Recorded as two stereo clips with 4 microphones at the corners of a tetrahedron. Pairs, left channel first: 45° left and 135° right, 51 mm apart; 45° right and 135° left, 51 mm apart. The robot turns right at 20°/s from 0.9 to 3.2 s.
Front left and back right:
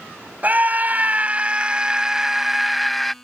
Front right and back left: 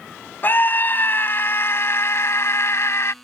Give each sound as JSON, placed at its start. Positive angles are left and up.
{"t": 0.4, "sound": "a scream", "azimuth_deg": -85}